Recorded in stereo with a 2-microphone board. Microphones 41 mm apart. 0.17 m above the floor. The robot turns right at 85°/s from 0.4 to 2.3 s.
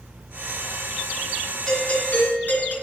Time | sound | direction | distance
1.7 | a doorbell | 15° left | 3.5 m